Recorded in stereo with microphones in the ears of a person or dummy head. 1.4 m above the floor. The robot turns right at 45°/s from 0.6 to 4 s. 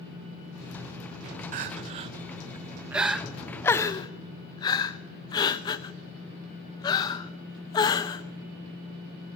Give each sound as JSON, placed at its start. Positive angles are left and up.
{"t": 1.5, "sound": "crying", "side_deg": -40, "distance_m": 0.6}